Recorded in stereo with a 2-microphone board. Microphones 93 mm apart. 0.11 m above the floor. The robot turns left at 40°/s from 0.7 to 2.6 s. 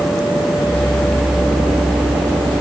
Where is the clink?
I don't hear a clink.